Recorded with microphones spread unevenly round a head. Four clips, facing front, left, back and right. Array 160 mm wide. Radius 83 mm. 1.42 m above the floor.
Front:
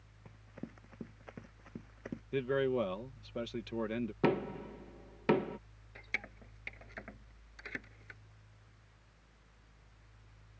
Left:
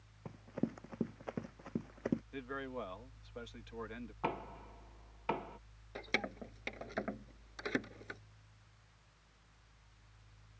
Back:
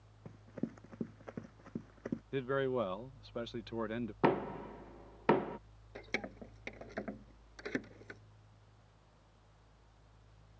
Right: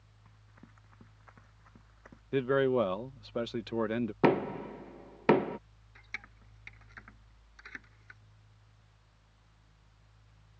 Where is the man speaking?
80° right.